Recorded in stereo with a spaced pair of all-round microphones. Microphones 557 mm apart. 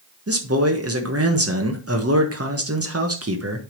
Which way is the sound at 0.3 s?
25° right (ahead or behind).